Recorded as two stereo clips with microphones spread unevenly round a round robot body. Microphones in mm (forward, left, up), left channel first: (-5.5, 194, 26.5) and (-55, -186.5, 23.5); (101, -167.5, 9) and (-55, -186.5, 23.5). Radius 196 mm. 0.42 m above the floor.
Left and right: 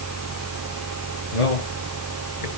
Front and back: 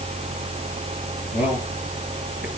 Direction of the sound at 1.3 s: 70° left.